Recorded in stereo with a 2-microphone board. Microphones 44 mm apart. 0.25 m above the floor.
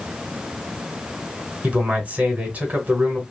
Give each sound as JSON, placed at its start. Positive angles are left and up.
{"t": 1.6, "sound": "a man speaking", "side_deg": -40, "distance_m": 1.3}